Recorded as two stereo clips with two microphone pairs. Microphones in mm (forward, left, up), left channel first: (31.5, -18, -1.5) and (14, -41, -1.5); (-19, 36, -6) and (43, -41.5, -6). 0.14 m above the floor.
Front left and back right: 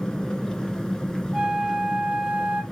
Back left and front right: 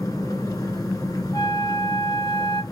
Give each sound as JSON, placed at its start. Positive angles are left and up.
{"t": 0.0, "sound": "an engine running", "azimuth_deg": 100, "distance_m": 1.0}
{"t": 1.3, "sound": "a flute", "azimuth_deg": 175, "distance_m": 0.9}